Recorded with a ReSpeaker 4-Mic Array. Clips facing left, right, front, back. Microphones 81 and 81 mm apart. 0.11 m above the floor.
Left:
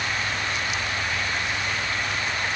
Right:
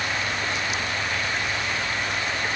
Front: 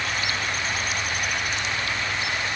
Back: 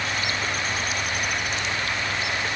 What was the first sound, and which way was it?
Only background noise.